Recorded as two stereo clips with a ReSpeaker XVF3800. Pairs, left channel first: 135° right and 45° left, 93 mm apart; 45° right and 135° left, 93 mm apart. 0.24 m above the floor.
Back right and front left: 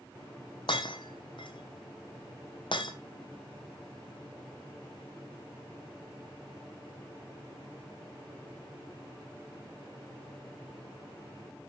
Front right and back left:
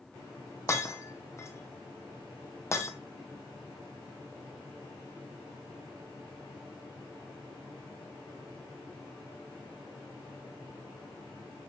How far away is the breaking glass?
About 1.3 m.